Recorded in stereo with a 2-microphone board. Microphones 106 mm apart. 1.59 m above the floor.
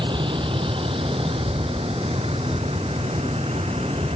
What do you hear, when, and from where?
0.0 s a vehicle: 50° right (ahead or behind); by 4.2 s 65° right (ahead or behind)